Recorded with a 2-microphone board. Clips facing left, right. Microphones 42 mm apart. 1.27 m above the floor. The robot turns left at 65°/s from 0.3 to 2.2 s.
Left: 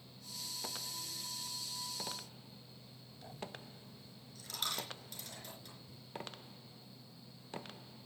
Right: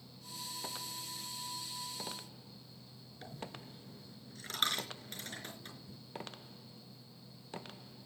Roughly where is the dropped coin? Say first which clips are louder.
Right 1 dB; right.